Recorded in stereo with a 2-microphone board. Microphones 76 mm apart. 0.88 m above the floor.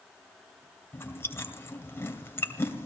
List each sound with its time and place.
0.9 s chewing: 30° left (ahead or behind), 2.5 m